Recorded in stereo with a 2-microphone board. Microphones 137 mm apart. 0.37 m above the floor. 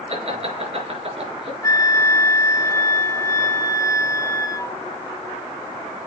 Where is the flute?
25° left (ahead or behind), 1.0 m.